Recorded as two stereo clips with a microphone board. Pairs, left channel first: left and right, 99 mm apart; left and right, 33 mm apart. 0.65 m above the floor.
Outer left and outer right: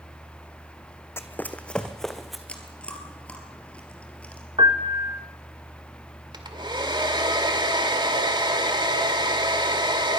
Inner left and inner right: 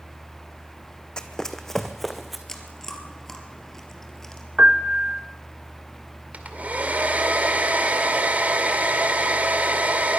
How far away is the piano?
About 0.8 m.